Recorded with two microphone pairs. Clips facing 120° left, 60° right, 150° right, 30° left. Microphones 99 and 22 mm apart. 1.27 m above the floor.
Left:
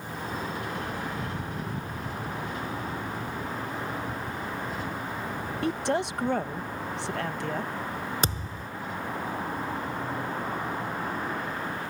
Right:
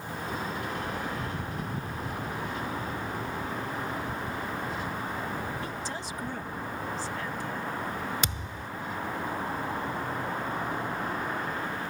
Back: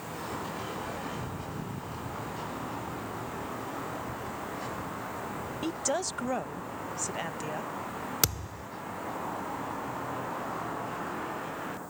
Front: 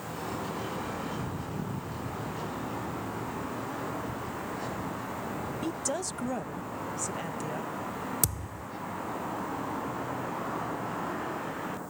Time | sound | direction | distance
5.6 | a woman speaking | 140° left | ?
8.2 | a thud | 165° left | ?